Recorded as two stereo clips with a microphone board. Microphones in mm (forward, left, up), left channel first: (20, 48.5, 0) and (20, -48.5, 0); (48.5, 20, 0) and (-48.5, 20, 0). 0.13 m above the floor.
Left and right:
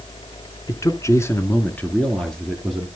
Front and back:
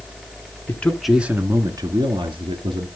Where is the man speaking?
60° left, 1.3 m; by 2.9 s straight behind, 2.5 m.